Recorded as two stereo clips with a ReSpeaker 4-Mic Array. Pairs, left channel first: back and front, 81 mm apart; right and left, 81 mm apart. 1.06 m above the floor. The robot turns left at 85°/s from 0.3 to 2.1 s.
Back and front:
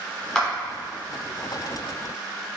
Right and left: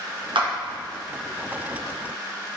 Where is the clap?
100° left, 0.8 m; by 0.5 s 85° left, 0.8 m.